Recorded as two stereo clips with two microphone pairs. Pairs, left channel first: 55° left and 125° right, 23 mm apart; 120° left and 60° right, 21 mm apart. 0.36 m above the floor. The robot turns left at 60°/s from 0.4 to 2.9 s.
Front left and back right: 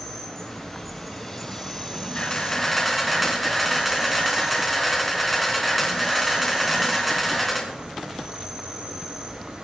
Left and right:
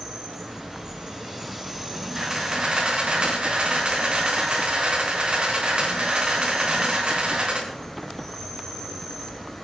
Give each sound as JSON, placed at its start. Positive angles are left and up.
{"t": 0.0, "sound": "an insect", "azimuth_deg": 0, "distance_m": 2.5}
{"t": 2.1, "sound": "a camera shutter", "azimuth_deg": 15, "distance_m": 4.0}